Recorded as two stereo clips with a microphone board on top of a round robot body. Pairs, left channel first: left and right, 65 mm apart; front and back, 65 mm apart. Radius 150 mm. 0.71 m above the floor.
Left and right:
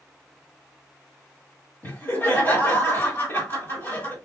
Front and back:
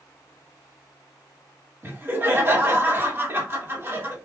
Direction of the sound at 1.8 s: 135° left.